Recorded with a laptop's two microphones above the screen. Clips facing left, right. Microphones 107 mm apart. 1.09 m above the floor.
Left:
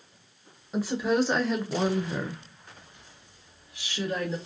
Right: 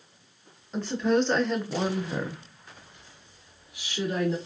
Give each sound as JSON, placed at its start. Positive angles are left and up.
{"t": 0.7, "sound": "a woman speaking", "side_deg": 10, "distance_m": 1.0}